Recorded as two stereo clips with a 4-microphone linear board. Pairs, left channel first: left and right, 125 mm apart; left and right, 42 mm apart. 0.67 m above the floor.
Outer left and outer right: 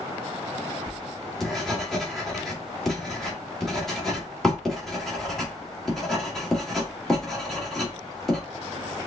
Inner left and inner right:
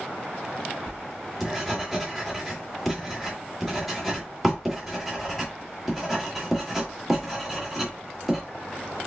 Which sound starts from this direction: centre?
Writing, at 0.9 s.